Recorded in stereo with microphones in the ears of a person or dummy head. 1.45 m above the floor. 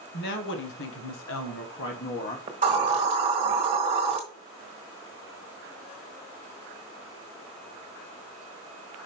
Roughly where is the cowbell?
I don't hear a cowbell.